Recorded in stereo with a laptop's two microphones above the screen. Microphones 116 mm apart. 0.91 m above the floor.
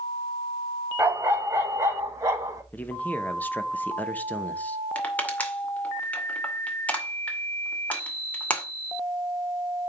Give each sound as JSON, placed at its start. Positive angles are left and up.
{"t": 1.0, "sound": "a dog barking", "side_deg": -20, "distance_m": 2.0}
{"t": 2.7, "sound": "a man speaking", "side_deg": 15, "distance_m": 1.0}
{"t": 5.0, "sound": "crushing", "side_deg": 10, "distance_m": 2.0}